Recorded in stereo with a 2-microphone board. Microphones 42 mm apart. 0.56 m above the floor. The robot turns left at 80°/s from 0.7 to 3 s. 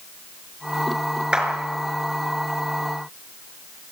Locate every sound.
1.3 s a clap: 25° right (ahead or behind), 5.5 m; by 1.5 s 15° right (ahead or behind), 5.5 m